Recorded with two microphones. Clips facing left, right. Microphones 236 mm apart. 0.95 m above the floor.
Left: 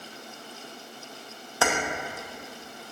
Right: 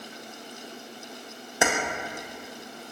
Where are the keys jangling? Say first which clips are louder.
Right 1 dB; 20° right (ahead or behind), 0.6 m.